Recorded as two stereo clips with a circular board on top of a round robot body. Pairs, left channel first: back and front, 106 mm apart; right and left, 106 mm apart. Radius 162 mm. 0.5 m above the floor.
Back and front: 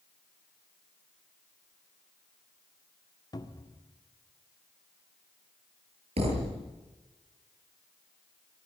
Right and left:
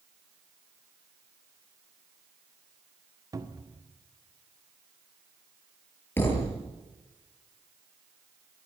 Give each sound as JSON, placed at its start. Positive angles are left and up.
{"t": 3.3, "sound": "a cupboard door", "azimuth_deg": 140, "distance_m": 2.0}
{"t": 6.2, "sound": "a thud", "azimuth_deg": -20, "distance_m": 7.0}